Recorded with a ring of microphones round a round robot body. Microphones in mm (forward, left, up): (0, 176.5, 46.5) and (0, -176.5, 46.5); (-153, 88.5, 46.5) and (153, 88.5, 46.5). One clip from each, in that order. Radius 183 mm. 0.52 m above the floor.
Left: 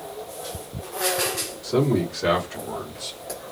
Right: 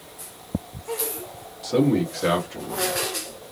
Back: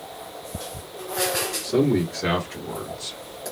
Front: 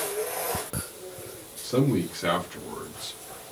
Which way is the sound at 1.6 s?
75° right.